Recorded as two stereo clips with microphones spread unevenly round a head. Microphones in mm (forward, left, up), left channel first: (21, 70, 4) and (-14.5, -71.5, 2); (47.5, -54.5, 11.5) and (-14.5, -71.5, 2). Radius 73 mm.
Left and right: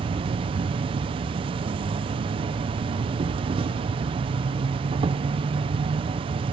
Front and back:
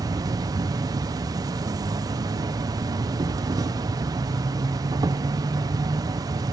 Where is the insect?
160° right, 0.7 m.